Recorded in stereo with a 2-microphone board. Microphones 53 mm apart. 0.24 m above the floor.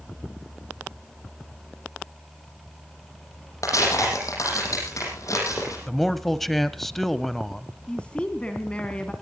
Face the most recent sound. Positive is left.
turn(degrees=20)  # may be behind; listen again after turning